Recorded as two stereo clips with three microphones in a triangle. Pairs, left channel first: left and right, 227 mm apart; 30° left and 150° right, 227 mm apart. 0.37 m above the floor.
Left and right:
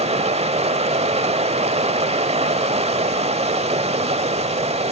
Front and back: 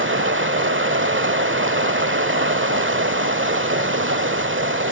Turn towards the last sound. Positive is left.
turn(degrees=-150)